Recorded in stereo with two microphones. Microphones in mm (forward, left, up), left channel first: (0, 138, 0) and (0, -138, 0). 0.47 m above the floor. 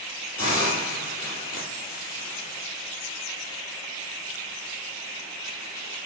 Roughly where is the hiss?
Right.